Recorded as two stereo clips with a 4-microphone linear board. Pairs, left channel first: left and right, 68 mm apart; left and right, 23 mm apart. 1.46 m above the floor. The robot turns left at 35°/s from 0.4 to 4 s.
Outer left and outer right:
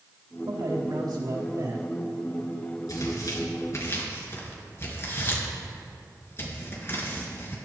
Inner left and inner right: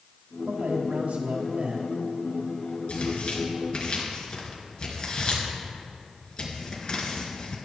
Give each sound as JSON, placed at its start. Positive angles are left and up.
{"t": 0.5, "sound": "a man speaking", "azimuth_deg": -80, "distance_m": 4.0}
{"t": 2.9, "sound": "tearing paper", "side_deg": 70, "distance_m": 4.0}